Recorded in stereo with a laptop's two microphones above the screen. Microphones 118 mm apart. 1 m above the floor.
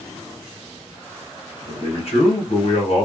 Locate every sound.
1.7 s a man speaking: 55° left (ahead or behind), 1.2 m